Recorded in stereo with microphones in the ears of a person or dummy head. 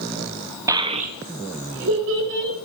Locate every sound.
0.7 s a child speaking: 10° right (ahead or behind), 0.7 m; by 2.5 s 75° right (ahead or behind), 2 m